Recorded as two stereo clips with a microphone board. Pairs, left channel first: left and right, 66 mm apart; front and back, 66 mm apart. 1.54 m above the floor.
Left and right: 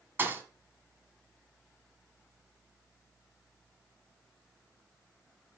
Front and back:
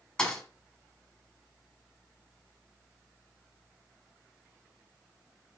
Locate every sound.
0.2 s a thud: 70° right, 1.6 m